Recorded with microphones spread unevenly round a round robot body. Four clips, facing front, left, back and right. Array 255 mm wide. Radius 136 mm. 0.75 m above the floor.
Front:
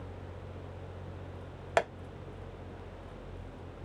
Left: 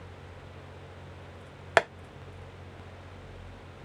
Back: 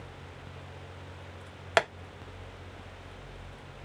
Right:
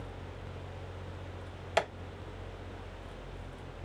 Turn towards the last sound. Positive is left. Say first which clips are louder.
# left 6 dB, back 2 dB
turn(degrees=120)